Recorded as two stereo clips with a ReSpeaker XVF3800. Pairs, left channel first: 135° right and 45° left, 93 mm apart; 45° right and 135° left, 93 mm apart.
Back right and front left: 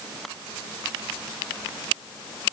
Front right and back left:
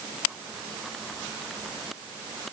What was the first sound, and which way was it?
Only background noise.